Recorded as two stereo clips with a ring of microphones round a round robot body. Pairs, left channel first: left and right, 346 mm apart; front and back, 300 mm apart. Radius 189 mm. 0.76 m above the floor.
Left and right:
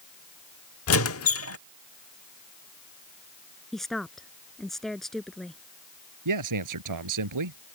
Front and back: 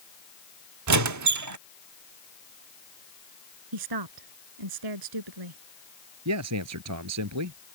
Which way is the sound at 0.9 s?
145° left.